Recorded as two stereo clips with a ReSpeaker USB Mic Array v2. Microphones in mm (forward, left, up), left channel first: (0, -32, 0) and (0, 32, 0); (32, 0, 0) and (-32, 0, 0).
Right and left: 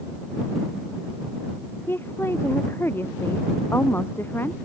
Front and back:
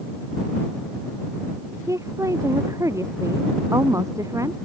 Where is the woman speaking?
145° right.